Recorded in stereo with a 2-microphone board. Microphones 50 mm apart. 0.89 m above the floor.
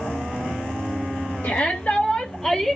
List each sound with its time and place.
1.4 s a shout: 40° left (ahead or behind), 1.2 m; by 2.8 s centre (ahead or behind), 0.9 m